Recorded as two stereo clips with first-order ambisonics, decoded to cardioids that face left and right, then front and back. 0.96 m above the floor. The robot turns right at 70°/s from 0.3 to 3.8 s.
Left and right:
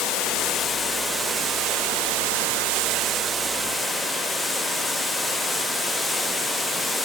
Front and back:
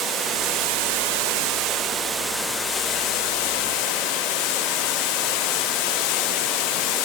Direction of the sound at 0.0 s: 125° left.